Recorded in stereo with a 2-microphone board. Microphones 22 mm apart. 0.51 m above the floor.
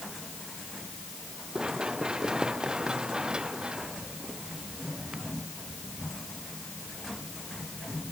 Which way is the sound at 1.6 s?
40° right (ahead or behind).